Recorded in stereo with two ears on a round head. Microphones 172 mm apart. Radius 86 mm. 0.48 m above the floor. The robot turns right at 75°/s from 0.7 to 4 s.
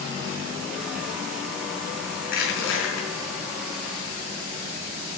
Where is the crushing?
45° left, 4.5 m; by 3.1 s 110° left, 4.5 m.